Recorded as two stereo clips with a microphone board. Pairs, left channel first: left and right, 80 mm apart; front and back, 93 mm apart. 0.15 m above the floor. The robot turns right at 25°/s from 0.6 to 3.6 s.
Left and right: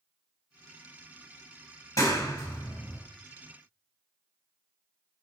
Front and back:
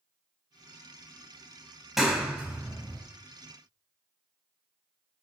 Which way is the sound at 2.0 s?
95° left.